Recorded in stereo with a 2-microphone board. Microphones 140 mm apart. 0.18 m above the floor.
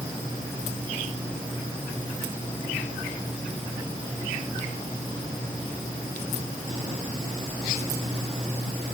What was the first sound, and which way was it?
Only background noise.